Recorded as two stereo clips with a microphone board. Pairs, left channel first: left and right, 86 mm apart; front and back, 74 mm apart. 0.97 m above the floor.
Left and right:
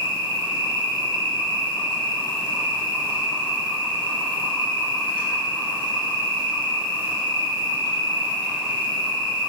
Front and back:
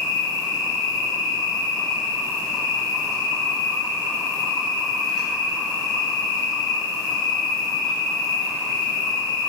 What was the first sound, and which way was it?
An insect, 85° left.